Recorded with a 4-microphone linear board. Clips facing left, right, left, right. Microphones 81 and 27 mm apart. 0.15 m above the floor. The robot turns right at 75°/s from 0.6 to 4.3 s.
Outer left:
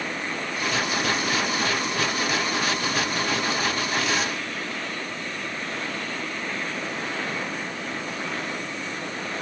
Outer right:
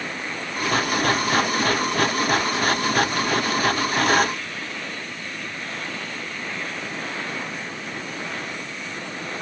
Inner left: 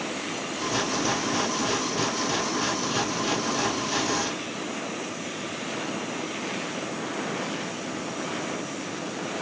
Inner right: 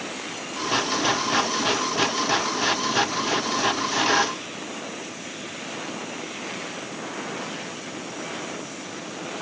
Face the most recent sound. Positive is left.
No sound to turn to.